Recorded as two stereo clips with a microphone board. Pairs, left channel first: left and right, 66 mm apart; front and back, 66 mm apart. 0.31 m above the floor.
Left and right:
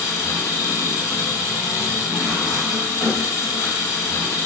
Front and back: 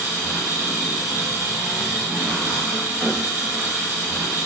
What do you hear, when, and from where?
0.0 s an engine running: 105° left, 1.3 m